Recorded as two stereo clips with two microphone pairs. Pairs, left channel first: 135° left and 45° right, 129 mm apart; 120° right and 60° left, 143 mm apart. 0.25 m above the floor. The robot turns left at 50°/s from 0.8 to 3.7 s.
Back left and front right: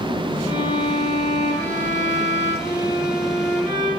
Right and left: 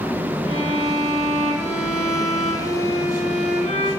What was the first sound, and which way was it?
A violin, 20° left.